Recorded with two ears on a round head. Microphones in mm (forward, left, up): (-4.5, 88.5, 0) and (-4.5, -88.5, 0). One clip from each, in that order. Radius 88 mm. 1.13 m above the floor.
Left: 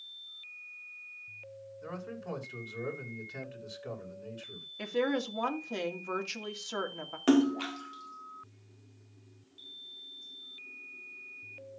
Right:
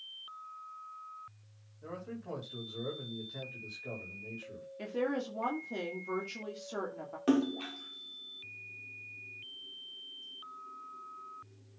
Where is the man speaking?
55° left (ahead or behind), 5 m.